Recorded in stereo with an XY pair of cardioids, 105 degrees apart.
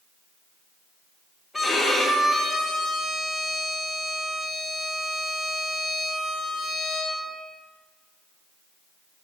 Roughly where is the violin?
Ahead left.